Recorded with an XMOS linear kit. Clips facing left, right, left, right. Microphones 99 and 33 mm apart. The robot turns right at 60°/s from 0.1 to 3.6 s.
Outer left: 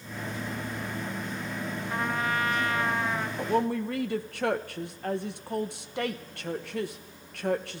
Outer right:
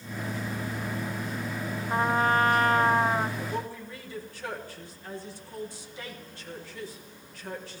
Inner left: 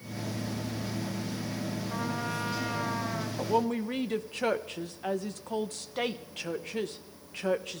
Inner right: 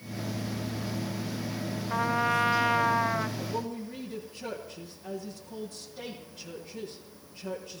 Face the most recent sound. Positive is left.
turn(degrees=65)  # may be behind; listen again after turning